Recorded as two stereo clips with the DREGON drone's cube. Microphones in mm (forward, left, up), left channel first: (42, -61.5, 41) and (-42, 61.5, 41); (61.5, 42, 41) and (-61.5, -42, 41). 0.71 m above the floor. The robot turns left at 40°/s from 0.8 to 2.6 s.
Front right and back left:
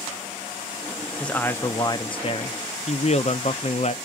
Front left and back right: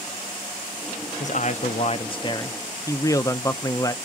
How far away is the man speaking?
About 0.7 m.